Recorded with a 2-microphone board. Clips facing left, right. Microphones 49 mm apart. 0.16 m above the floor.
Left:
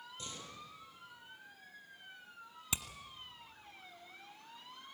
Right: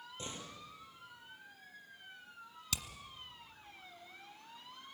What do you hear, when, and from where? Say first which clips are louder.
0.2 s a door slam: right 3 dB; 30° right (ahead or behind), 4 m
2.7 s hammering: left 1 dB; 25° left (ahead or behind), 1.3 m